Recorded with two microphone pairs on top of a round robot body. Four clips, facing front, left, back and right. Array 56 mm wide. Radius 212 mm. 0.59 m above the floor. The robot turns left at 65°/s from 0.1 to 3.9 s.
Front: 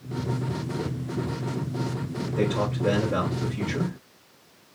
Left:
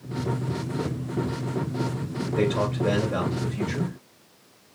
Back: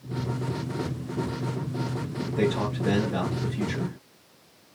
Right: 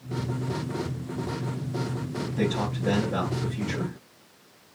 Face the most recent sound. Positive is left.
turn(degrees=-25)